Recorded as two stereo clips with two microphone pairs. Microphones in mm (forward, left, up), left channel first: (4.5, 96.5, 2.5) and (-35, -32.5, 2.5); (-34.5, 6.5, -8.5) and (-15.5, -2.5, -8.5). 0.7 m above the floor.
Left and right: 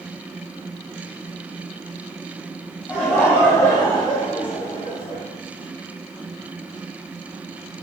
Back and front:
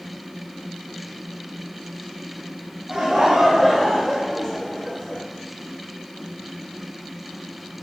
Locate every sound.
2.9 s laughter: 5° right, 0.7 m; by 5.2 s 115° left, 1.0 m